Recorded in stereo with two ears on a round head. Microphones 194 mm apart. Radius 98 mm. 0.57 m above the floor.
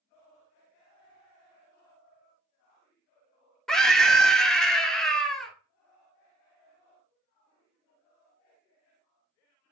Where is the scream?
Centre (ahead or behind), 1.0 m.